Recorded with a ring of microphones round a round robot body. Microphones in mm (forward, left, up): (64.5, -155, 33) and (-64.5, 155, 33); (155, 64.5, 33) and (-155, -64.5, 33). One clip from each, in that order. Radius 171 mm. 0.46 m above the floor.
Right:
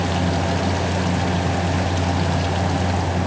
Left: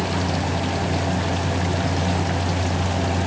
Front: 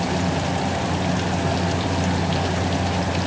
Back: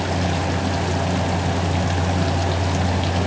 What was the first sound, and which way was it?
Only background noise.